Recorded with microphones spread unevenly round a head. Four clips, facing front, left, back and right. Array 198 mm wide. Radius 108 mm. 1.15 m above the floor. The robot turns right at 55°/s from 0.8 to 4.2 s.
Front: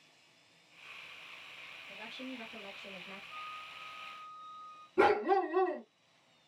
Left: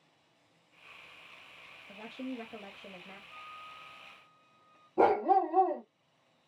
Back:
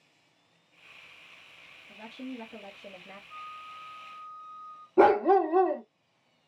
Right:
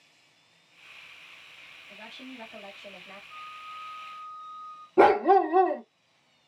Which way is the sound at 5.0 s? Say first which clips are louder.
Right 6 dB, back 7 dB; 110° right.